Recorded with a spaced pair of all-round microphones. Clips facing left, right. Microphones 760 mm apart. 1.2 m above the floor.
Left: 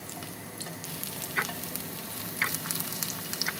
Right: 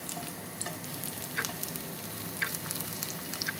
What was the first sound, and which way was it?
Ticking, 85° left.